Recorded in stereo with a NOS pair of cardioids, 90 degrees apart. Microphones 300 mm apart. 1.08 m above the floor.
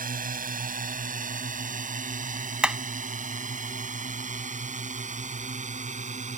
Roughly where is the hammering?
Ahead.